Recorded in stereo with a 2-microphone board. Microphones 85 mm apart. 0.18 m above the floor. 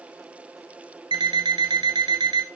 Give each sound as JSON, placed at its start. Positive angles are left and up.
{"t": 1.1, "sound": "an alarm clock", "side_deg": -70, "distance_m": 1.3}